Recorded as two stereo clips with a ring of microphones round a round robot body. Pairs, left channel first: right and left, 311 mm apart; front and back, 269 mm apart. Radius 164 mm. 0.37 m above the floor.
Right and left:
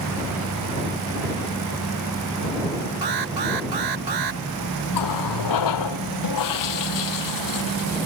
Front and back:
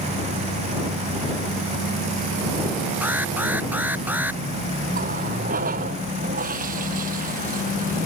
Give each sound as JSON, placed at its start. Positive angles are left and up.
{"t": 3.0, "sound": "an alarm", "azimuth_deg": 95}
{"t": 4.9, "sound": "a running tap", "azimuth_deg": -115}